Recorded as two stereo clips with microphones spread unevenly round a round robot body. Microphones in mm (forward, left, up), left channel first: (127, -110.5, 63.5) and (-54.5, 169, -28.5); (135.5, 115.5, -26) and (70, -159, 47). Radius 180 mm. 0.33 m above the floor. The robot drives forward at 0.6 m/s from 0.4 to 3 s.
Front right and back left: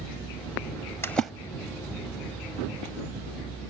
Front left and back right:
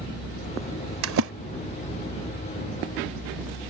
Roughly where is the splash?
Behind right.